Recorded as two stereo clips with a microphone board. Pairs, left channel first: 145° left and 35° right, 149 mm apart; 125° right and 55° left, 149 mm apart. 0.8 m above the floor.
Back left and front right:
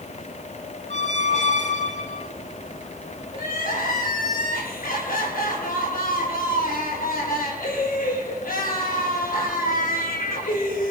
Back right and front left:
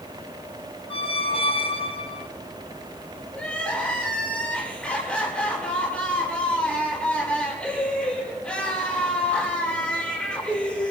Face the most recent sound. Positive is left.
turn(degrees=150)